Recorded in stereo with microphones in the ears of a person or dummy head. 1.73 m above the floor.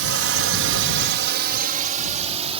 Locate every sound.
0.0 s a drone: 75° right (ahead or behind); by 2.6 s 30° right (ahead or behind)